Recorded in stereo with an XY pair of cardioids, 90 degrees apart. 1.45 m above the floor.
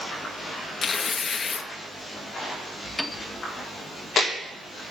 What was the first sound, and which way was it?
Tearing paper, 45° left.